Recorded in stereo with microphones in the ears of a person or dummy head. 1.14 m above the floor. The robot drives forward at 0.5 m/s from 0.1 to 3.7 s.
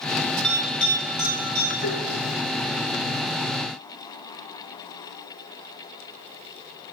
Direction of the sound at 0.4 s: Centre (ahead or behind).